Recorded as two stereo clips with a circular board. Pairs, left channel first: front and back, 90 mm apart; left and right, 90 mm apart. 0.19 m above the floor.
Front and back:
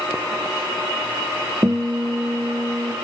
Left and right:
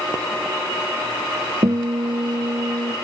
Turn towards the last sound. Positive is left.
turn(degrees=-125)